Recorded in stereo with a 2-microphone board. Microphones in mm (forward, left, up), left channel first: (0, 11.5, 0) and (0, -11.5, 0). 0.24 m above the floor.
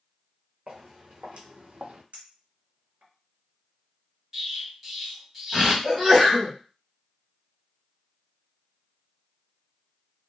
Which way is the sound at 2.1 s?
65° right (ahead or behind).